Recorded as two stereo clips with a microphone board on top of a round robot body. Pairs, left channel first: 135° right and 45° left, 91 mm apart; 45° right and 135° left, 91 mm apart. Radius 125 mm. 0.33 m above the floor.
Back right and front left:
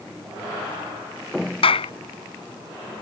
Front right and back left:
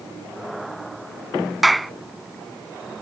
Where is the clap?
135° right.